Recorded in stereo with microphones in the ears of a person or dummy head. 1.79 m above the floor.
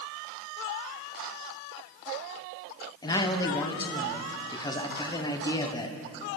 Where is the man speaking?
20° left (ahead or behind), 1.3 m.